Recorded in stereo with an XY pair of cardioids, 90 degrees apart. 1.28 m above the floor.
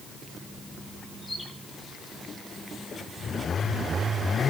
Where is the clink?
I don't hear a clink.